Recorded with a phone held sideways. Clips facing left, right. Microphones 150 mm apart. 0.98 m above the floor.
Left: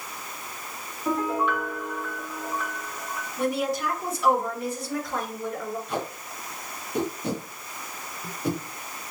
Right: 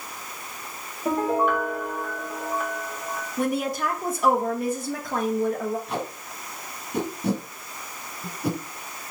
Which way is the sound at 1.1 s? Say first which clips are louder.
Right 3 dB; 45° right (ahead or behind).